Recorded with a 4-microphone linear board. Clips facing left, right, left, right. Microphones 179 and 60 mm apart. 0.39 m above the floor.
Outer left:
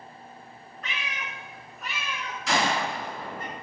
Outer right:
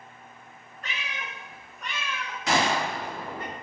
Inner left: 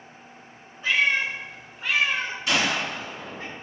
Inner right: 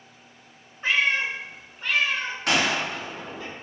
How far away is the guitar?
No guitar in this recording.